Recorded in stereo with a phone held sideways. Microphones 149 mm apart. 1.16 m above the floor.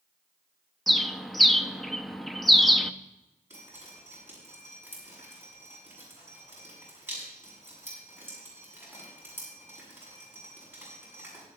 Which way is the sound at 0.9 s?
Centre (ahead or behind).